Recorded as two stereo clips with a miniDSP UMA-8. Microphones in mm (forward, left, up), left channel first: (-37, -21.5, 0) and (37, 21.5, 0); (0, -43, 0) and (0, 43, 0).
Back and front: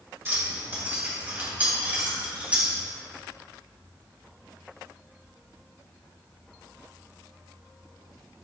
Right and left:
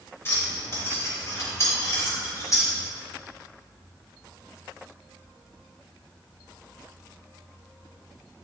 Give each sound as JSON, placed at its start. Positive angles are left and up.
{"t": 0.2, "sound": "keys jangling", "azimuth_deg": -30, "distance_m": 1.8}